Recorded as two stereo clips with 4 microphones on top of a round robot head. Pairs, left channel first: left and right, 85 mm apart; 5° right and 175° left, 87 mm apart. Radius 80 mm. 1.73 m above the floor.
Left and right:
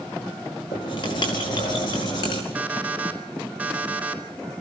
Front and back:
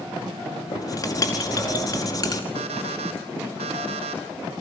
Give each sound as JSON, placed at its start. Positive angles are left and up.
{"t": 0.7, "sound": "writing", "azimuth_deg": 45, "distance_m": 4.5}
{"t": 2.5, "sound": "an alarm clock", "azimuth_deg": -165, "distance_m": 4.5}